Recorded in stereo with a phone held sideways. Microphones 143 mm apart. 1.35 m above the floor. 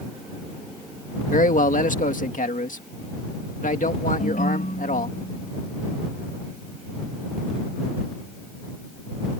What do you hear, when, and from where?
1.3 s a man speaking: 65° left (ahead or behind)
4.2 s a ringtone: 75° left (ahead or behind)